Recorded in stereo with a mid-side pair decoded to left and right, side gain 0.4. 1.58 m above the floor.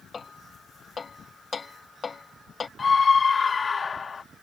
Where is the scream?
40° left.